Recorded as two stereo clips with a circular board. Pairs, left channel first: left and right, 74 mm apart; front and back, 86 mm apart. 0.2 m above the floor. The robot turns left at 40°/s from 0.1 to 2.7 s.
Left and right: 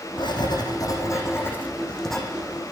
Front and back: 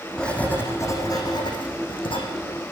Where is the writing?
80° left, 5.5 m; by 2.2 s straight ahead, 5.5 m.